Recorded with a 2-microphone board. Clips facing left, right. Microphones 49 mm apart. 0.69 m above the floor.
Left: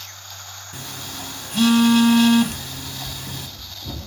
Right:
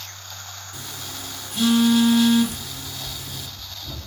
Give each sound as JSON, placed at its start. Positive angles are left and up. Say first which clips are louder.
{"t": 0.7, "sound": "a phone buzzing", "louder": "left 3 dB", "side_deg": 65, "distance_m": 0.9}
{"t": 2.5, "sound": "running footsteps", "louder": "left 2 dB", "side_deg": 45, "distance_m": 1.4}